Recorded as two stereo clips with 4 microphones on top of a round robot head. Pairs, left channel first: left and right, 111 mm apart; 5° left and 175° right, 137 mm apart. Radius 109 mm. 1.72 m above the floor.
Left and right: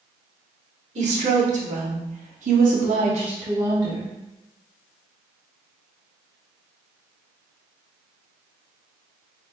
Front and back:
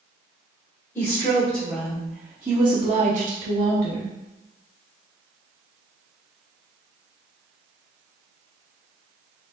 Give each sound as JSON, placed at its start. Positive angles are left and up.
{"t": 0.9, "sound": "a woman speaking", "azimuth_deg": -70, "distance_m": 1.4}